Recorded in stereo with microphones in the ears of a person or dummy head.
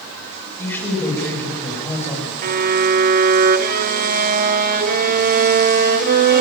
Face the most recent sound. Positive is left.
turn(degrees=-45)  # may be behind; listen again after turning